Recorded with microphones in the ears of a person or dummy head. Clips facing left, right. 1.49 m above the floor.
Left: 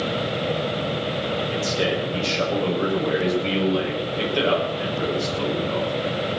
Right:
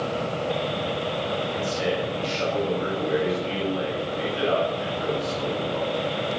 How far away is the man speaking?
About 7 m.